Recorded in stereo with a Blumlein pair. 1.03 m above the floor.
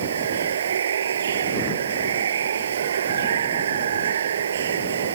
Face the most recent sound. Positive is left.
turn(degrees=-65)